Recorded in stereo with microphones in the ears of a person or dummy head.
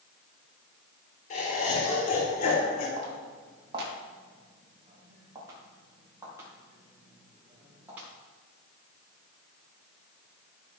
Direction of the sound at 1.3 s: 50° left (ahead or behind).